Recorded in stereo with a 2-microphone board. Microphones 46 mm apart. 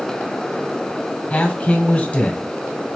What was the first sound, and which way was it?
A man speaking, 30° left (ahead or behind).